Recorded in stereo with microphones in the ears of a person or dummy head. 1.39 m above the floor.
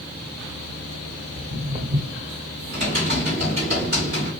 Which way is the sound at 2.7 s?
40° right (ahead or behind).